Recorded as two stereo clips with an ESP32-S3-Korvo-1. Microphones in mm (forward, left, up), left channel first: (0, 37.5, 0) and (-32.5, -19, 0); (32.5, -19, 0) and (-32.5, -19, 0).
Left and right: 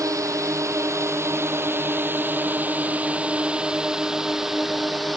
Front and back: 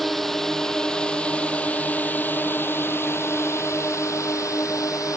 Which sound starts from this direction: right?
A drone, at 0.0 s.